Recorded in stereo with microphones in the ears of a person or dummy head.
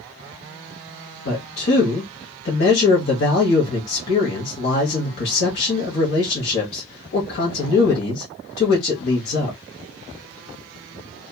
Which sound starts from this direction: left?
A man speaking, at 1.2 s.